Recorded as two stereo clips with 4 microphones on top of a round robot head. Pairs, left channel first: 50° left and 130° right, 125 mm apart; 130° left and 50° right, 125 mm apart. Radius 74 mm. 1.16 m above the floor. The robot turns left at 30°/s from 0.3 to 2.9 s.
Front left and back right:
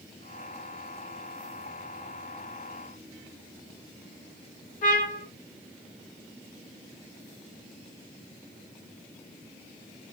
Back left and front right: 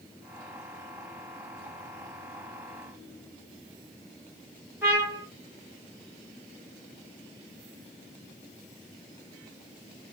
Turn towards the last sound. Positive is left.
turn(degrees=20)